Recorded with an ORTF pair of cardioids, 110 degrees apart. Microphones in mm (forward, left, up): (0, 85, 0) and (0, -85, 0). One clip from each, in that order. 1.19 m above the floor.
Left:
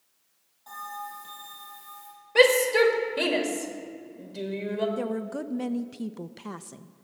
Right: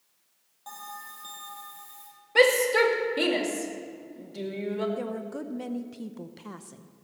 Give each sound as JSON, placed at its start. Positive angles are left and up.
{"t": 0.7, "sound": "a bell", "azimuth_deg": -45, "distance_m": 6.5}
{"t": 2.4, "sound": "a shout", "azimuth_deg": 0, "distance_m": 2.0}
{"t": 5.0, "sound": "a woman speaking", "azimuth_deg": 15, "distance_m": 0.6}